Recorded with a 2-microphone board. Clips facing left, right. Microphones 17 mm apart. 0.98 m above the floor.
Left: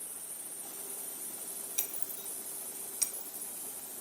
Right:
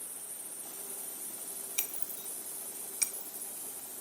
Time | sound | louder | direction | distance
1.8 | breaking glass | right 1 dB | 35° right (ahead or behind) | 0.6 m